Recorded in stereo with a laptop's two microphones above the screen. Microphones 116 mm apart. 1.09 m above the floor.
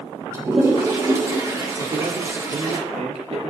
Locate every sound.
0.3 s a toilet flushing: 25° right (ahead or behind), 6 m
1.8 s a man speaking: 65° right (ahead or behind), 1.5 m